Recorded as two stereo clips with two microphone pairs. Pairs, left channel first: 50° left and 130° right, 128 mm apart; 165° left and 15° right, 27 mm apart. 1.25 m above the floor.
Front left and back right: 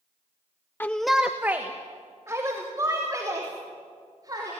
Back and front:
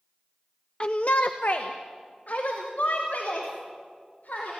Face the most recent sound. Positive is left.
turn(degrees=170)